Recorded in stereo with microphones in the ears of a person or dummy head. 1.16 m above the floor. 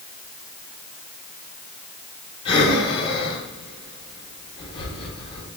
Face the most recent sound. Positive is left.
turn(degrees=20)  # may be behind; listen again after turning